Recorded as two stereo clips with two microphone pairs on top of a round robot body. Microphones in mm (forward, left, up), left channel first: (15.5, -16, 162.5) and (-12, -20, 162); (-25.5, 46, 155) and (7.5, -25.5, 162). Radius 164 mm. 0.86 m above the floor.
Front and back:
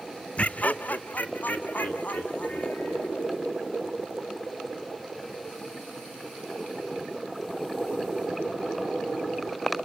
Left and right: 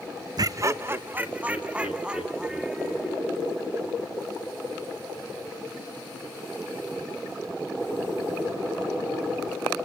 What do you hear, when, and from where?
0.4 s laughter: 30° right, 0.7 m; by 3.2 s 15° left, 3.5 m